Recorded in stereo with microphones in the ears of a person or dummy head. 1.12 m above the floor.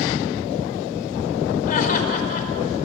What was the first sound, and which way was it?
Laughter, 50° left (ahead or behind).